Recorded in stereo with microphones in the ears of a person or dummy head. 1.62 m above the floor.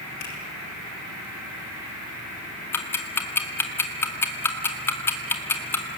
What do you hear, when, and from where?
0.2 s a finger snap: 60° left (ahead or behind), 7 m
2.7 s ticking: 10° left (ahead or behind), 2 m